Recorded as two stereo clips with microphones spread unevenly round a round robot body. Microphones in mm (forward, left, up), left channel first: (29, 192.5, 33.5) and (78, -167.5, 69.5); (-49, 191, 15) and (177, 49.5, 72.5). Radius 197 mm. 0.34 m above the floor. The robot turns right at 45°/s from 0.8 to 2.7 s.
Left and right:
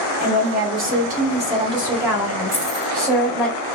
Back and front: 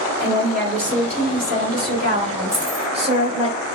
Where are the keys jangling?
25° left, 2 m; by 2.9 s 35° left, 2 m.